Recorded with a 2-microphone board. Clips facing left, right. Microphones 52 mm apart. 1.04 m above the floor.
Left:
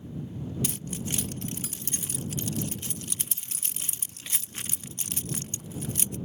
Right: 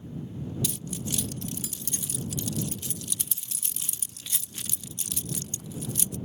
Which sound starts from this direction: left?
Keys jangling, at 0.6 s.